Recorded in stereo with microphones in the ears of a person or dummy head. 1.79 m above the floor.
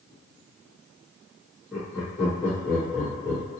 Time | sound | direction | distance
1.7 | laughter | 5° right (ahead or behind) | 1.0 m